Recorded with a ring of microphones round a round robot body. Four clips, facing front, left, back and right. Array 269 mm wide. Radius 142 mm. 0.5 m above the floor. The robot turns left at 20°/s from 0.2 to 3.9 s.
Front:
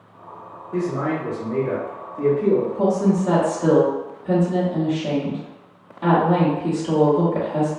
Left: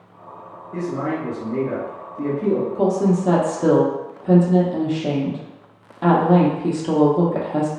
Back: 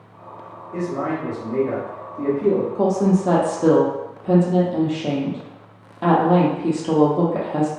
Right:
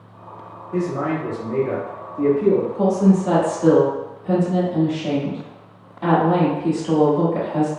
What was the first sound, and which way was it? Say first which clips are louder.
A man speaking: right 2 dB, front 1 dB; 55° right.